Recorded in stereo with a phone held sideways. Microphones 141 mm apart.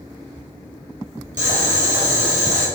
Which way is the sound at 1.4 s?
60° right (ahead or behind).